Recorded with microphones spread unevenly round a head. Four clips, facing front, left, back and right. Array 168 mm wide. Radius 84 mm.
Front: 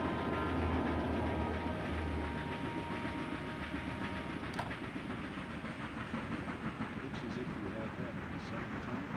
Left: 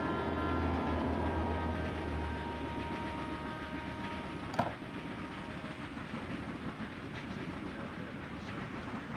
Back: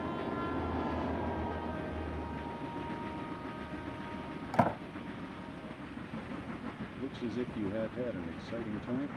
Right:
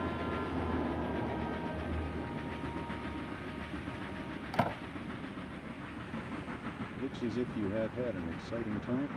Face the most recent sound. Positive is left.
turn(degrees=-125)